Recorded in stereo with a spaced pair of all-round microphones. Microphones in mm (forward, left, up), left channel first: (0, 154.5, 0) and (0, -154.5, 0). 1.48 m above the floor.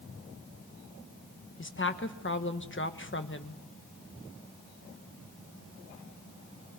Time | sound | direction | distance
1.6 | a woman speaking | 40° left (ahead or behind) | 1.2 m